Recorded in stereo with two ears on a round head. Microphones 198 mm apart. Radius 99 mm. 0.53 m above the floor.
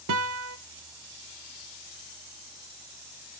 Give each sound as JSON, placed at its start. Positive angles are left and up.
{"t": 0.1, "sound": "a guitar", "side_deg": -65, "distance_m": 0.6}